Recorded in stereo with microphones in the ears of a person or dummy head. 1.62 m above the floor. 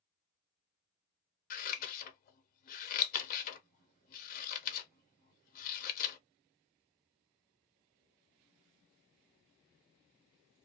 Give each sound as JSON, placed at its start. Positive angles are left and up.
{"t": 1.5, "sound": "scissors", "side_deg": 45, "distance_m": 0.7}